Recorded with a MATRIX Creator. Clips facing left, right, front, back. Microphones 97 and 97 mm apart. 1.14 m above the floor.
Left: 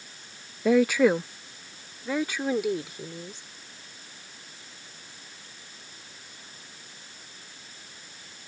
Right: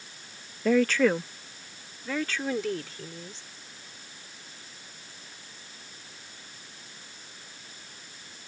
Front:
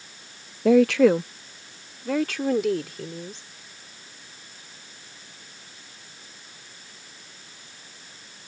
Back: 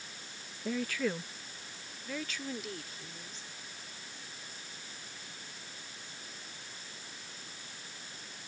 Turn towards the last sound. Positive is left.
turn(degrees=15)